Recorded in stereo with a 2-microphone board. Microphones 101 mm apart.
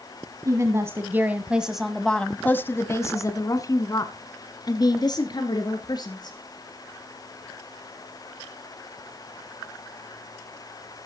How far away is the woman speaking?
About 1.4 m.